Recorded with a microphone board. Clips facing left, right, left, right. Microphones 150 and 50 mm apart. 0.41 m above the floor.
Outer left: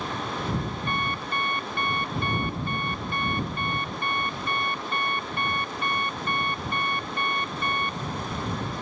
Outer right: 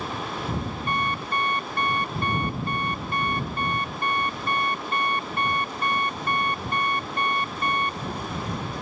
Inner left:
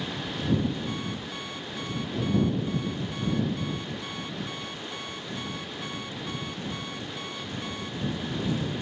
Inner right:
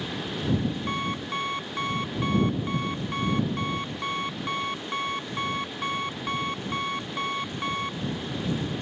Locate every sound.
0.9 s an alarm clock: 40° right (ahead or behind)